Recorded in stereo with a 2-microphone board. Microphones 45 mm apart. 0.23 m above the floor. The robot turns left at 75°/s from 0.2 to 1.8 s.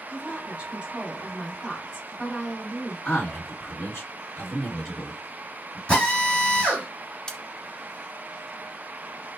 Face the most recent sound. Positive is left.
turn(degrees=15)  # may be behind; listen again after turning